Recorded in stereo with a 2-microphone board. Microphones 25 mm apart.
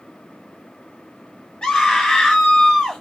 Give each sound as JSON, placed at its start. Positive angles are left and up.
{"t": 1.6, "sound": "a scream", "side_deg": 35, "distance_m": 1.3}